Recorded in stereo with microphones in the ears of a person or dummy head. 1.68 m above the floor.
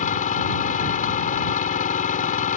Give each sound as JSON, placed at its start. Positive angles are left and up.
{"t": 0.0, "sound": "an engine running", "side_deg": 40}